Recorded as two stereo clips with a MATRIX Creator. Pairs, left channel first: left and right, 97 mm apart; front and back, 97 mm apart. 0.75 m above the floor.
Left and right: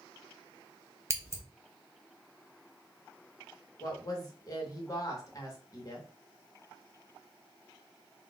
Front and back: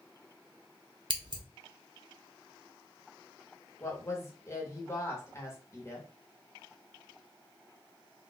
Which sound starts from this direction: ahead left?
A woman speaking, at 3.8 s.